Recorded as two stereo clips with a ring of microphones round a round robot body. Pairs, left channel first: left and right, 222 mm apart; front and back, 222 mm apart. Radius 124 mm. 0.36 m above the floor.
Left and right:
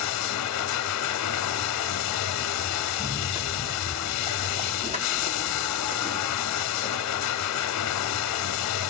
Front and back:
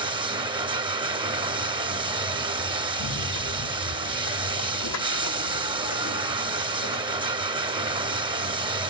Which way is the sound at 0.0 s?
110° left.